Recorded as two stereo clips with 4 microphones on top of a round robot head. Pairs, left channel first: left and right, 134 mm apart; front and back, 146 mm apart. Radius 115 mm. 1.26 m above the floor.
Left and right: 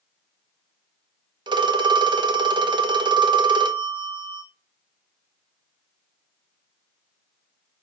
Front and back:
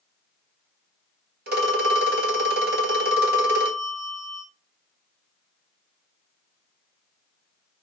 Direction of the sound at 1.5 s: 145° right.